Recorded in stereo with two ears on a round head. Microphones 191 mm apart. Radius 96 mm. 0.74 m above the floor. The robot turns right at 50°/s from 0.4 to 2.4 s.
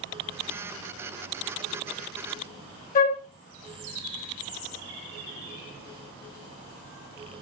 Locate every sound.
3.0 s a flute: 40° left (ahead or behind), 0.7 m